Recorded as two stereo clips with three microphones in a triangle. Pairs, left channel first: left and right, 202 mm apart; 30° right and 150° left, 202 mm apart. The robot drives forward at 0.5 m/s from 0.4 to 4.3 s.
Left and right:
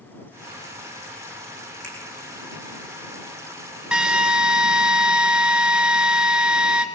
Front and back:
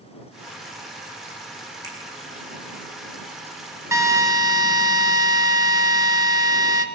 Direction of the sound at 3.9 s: 165° right.